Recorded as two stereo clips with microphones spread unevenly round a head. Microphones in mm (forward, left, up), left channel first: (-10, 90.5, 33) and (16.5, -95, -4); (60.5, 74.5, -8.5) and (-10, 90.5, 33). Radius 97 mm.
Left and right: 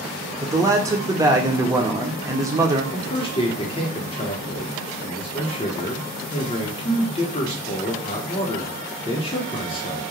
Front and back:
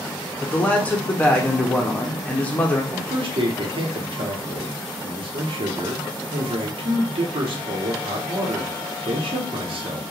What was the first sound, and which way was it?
A man speaking, 25° right.